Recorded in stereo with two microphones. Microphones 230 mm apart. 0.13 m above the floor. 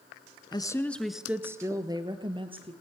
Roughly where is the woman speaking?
Centre.